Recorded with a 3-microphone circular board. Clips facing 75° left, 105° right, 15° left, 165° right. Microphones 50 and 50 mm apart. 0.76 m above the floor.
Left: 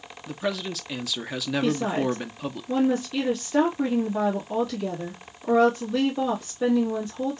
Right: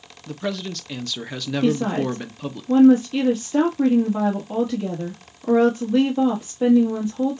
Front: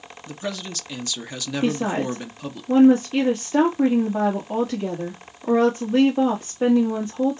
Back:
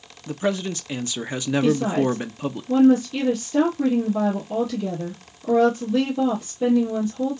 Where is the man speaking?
155° left, 0.5 m.